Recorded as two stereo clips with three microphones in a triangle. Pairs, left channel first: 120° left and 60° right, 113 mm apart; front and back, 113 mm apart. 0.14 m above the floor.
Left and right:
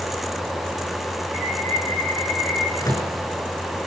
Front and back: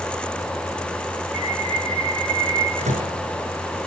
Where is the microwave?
175° left, 7 m.